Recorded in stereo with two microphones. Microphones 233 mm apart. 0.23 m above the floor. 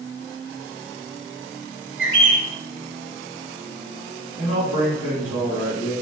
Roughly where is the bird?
Right.